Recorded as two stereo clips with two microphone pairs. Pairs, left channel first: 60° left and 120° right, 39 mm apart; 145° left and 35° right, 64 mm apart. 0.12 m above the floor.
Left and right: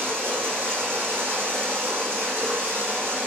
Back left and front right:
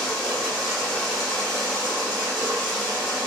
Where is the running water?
130° right, 1.4 m.